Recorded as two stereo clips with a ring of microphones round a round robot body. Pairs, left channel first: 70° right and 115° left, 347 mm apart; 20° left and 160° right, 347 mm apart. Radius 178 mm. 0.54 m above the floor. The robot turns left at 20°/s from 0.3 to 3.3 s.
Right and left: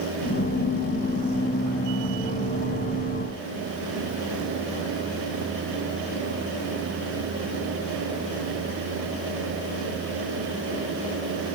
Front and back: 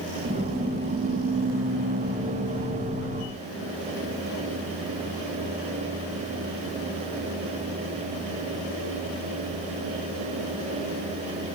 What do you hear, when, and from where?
Only background noise.